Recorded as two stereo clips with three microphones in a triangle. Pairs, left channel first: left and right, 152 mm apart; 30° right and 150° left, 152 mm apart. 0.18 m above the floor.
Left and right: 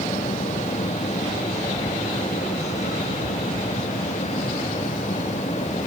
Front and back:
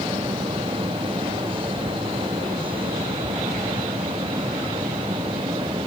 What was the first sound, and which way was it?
Only background noise.